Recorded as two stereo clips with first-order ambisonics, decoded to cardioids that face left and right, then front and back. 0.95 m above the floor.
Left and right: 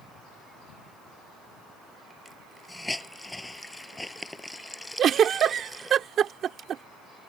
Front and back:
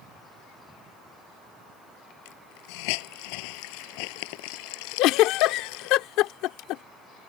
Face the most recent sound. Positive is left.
turn(degrees=-30)